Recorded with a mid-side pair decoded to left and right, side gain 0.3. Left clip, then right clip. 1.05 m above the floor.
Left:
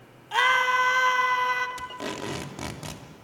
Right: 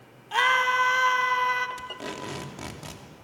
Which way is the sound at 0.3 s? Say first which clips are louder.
Even; 5° left.